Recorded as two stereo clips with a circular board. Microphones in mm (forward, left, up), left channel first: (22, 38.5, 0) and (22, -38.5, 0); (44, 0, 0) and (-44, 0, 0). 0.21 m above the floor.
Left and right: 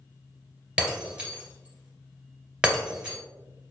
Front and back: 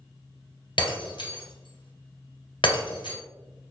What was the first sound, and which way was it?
Breaking glass, 15° right.